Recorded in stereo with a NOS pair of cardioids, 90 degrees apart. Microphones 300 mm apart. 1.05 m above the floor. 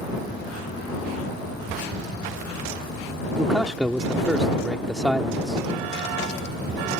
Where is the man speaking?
Straight ahead.